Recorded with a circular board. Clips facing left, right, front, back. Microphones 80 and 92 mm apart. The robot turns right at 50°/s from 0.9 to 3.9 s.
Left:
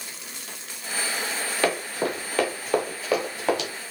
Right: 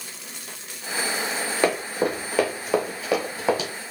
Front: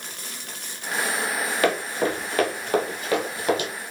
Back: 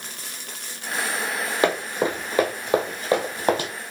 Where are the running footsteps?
145° right, 1.1 m; by 3.7 s 165° right, 1.2 m.